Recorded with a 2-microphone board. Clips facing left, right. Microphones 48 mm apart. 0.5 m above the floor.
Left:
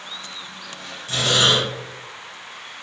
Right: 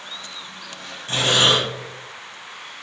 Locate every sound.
1.1 s breathing: 40° right (ahead or behind), 4.5 m